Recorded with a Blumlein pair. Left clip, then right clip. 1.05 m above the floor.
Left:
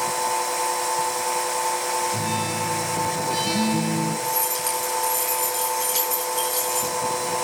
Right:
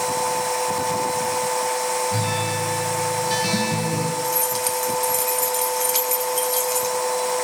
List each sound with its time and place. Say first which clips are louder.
0.0 s a machine running: right 1 dB; 5° right, 8 m
2.1 s a guitar: right 2 dB; 30° right, 5.5 m
4.2 s keys jangling: right 2 dB; 15° right, 8.5 m